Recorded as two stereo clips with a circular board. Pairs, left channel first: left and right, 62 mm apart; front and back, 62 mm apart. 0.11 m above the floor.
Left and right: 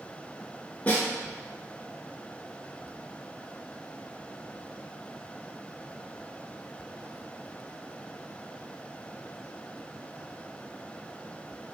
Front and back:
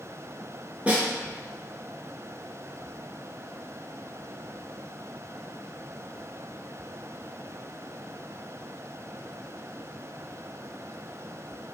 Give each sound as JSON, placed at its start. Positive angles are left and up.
{"t": 0.9, "sound": "a snare drum", "azimuth_deg": 130, "distance_m": 1.1}